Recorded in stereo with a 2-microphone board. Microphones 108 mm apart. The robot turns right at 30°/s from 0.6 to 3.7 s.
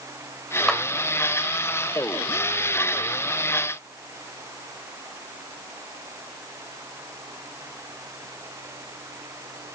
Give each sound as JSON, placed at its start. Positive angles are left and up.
{"t": 0.7, "sound": "a clap", "side_deg": 5, "distance_m": 1.5}